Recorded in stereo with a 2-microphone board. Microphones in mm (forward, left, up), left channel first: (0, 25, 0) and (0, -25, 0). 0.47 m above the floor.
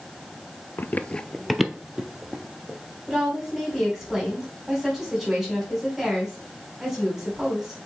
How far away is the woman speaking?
About 3.5 m.